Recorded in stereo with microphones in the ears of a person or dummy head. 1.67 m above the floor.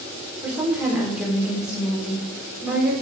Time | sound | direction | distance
0.4 | a woman speaking | 5° right (ahead or behind) | 4 m